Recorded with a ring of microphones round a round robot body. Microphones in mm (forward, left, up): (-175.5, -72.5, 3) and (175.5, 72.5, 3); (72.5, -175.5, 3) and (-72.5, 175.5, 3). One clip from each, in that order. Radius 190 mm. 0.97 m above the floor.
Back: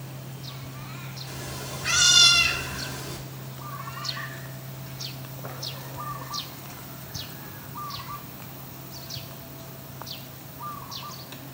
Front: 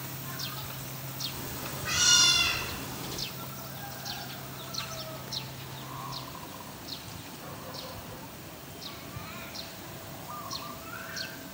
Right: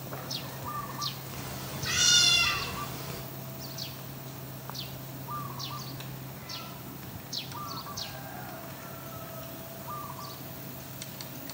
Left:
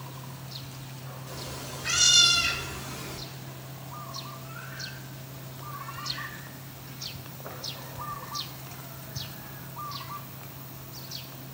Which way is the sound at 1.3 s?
170° left.